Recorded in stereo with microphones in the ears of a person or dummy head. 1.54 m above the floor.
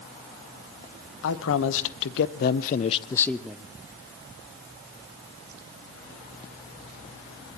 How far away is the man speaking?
About 1.3 m.